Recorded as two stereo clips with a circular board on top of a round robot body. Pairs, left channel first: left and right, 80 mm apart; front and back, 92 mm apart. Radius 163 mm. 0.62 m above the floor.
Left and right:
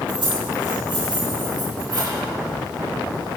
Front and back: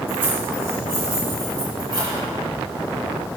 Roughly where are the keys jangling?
Right.